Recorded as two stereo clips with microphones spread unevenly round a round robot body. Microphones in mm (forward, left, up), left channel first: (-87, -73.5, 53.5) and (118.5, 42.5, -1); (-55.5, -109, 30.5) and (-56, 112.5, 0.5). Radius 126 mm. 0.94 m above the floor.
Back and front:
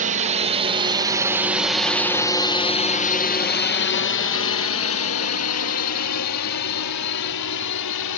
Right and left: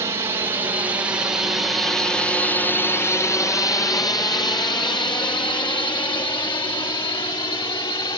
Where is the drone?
25° left; by 8.2 s 160° right.